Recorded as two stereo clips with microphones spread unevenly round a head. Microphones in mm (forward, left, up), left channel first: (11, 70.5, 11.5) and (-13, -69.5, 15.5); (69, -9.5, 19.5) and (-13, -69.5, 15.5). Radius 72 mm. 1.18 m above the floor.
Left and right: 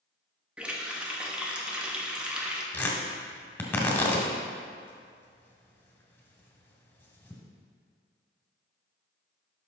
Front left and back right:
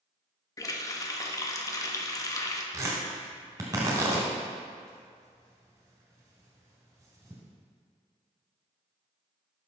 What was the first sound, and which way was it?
A running tap, 20° right.